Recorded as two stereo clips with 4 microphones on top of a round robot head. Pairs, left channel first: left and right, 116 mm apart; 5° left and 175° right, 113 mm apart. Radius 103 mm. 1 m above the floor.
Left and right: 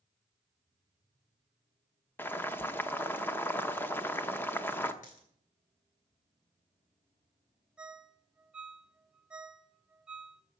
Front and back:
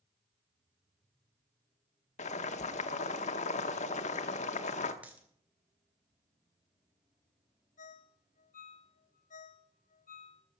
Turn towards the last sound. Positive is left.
turn(degrees=-10)